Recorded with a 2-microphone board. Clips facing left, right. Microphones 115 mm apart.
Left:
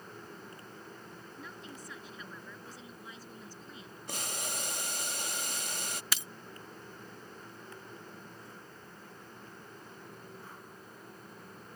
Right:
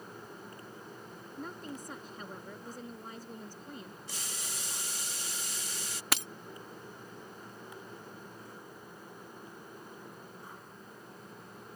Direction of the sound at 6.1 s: 65° right (ahead or behind).